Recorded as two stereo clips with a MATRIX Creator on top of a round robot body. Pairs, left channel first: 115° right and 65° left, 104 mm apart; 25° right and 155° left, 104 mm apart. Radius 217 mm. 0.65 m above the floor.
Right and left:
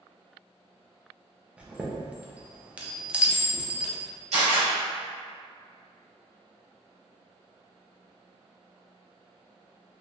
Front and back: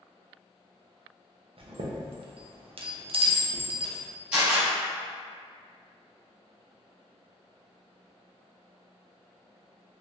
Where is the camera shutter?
80° left, 0.9 m.